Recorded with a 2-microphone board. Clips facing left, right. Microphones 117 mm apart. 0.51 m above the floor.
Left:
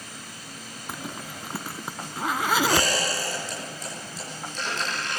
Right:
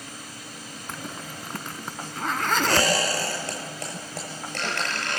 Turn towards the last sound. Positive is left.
turn(degrees=-65)  # may be behind; listen again after turning